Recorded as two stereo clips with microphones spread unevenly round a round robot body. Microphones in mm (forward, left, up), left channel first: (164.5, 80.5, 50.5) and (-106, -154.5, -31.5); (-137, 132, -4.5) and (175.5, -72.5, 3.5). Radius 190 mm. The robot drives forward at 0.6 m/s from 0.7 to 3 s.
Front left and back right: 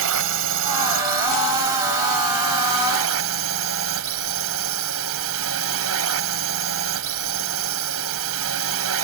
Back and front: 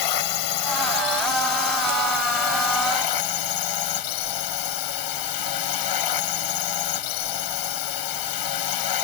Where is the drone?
175° left.